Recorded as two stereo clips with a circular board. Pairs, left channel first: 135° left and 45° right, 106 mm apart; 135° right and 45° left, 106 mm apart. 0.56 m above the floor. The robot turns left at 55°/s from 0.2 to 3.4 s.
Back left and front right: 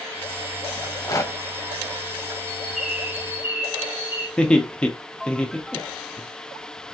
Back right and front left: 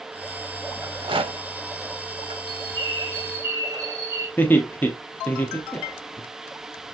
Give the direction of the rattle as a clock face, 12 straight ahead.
9 o'clock.